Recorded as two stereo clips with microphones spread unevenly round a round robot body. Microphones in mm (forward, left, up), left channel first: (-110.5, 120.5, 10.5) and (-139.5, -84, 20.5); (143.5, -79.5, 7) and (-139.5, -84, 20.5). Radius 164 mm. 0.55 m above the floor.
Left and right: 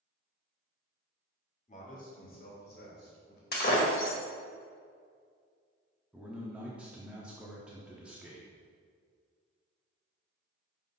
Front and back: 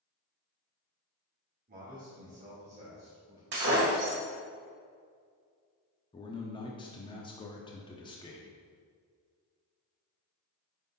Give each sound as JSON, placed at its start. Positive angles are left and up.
{"t": 1.7, "sound": "a man speaking", "azimuth_deg": 125, "distance_m": 1.8}
{"t": 3.5, "sound": "breaking glass", "azimuth_deg": 120, "distance_m": 1.6}
{"t": 6.1, "sound": "a man speaking", "azimuth_deg": -15, "distance_m": 0.6}